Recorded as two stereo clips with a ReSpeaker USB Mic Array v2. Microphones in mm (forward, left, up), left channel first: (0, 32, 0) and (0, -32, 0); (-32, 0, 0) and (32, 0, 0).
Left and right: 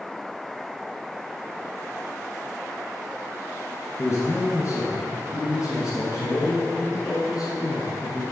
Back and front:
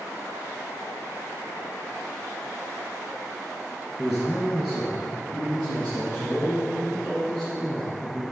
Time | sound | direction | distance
4.0 | a man speaking | 95° left | 2.5 m